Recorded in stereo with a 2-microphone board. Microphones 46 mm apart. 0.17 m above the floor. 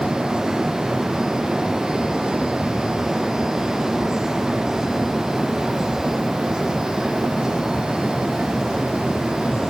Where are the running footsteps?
I don't hear running footsteps.